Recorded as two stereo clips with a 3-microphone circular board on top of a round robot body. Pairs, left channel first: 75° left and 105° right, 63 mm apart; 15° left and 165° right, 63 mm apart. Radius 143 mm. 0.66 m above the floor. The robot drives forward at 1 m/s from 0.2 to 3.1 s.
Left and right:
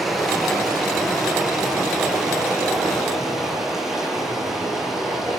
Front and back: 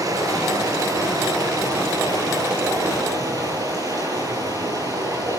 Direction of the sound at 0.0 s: 165° left.